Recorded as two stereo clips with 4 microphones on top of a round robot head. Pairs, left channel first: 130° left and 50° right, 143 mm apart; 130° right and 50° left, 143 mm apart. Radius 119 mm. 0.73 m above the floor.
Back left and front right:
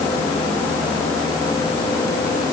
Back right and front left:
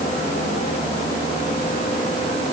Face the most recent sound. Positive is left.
No sound to turn to.